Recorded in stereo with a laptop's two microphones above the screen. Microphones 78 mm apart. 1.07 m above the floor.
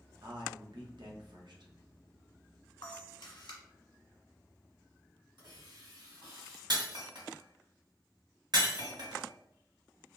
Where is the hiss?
80° right, 1.7 m.